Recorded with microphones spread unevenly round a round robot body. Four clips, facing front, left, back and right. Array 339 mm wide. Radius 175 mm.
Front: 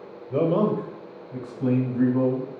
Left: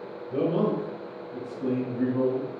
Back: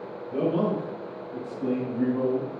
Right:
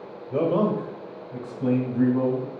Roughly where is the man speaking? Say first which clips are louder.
Right 3 dB, front 3 dB; ahead right.